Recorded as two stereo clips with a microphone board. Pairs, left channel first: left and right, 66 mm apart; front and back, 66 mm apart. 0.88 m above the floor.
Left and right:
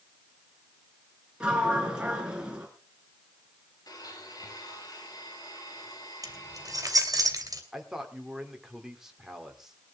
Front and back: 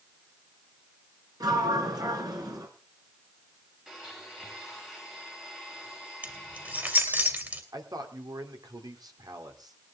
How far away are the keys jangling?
About 2.5 m.